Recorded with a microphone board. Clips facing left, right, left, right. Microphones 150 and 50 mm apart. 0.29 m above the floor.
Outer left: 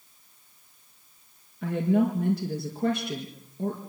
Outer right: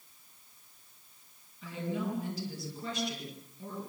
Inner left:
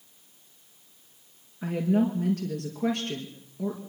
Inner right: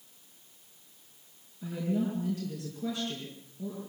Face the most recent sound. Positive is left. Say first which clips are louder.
# outer left 12 dB, inner left 6 dB
turn(degrees=60)  # may be behind; listen again after turning